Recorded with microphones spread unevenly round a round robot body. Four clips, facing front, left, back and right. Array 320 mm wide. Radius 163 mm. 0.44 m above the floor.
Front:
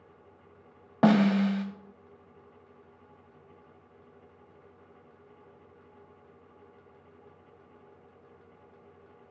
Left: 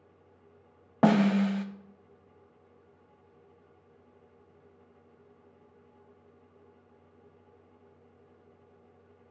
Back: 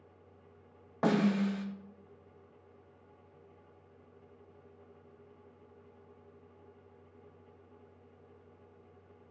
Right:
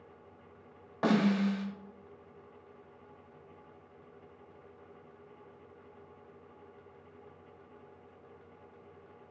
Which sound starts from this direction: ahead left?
A snare drum, at 1.0 s.